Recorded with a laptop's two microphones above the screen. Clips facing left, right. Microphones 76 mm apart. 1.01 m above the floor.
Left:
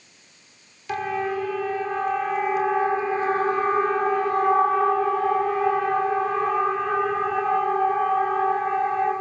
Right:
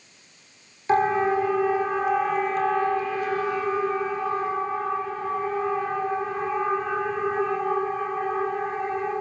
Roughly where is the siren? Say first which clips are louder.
Right 5 dB; right.